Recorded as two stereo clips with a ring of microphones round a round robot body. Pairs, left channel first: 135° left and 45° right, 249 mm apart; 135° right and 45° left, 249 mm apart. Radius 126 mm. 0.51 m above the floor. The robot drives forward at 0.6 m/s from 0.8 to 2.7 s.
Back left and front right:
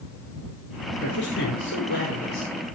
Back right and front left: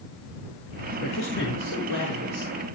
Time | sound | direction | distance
1.0 | a man speaking | 175° right | 5 m